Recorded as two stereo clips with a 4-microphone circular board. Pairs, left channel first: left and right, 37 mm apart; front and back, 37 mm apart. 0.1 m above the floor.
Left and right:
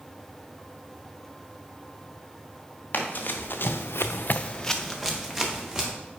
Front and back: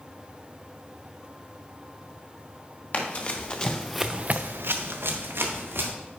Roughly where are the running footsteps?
Ahead left.